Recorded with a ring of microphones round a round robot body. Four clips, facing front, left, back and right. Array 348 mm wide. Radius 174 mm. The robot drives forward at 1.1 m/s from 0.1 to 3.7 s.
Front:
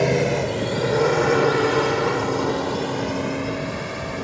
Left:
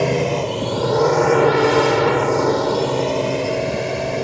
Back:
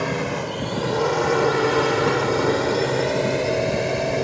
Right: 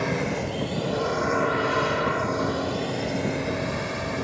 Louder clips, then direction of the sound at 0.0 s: Left 8 dB, front 5 dB; 50° left.